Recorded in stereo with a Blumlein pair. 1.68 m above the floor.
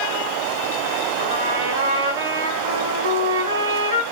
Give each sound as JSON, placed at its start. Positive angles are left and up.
{"t": 1.2, "sound": "a trumpet", "azimuth_deg": -70, "distance_m": 4.0}